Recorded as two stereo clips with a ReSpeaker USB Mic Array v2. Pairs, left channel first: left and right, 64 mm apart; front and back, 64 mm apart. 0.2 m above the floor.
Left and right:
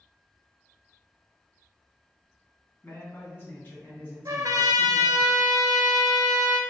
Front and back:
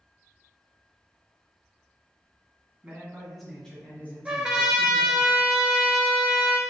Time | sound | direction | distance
2.8 | a man speaking | 120° left | 1.7 m
4.2 | a trumpet | 100° right | 0.6 m